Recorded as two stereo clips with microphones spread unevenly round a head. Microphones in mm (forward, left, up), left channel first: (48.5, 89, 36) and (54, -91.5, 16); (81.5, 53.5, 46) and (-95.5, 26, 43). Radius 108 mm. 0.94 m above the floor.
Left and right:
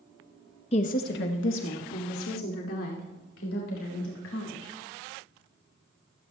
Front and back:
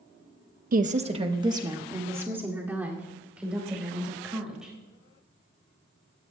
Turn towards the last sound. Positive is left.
turn(degrees=105)